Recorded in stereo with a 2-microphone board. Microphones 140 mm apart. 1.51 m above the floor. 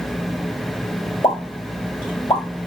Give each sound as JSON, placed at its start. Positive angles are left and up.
{"t": 1.2, "sound": "a pop", "side_deg": 30, "distance_m": 3.0}